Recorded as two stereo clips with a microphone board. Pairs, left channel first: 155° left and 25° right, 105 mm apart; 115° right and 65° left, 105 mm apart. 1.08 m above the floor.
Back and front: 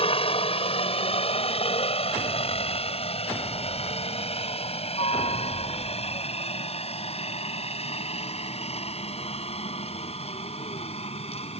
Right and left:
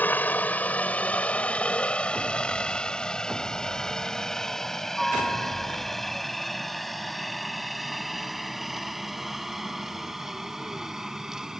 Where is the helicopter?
175° left; by 11.6 s 150° left.